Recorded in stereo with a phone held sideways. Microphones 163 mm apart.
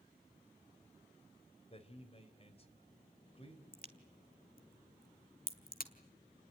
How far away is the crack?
About 1.9 m.